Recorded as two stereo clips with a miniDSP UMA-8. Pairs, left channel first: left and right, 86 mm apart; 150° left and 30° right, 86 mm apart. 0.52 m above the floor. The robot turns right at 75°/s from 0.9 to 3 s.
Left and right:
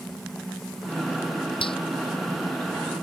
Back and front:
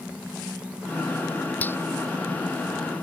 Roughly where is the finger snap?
Left.